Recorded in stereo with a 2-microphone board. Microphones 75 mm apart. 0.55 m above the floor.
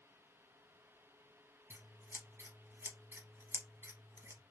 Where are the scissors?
35° right (ahead or behind), 0.7 m.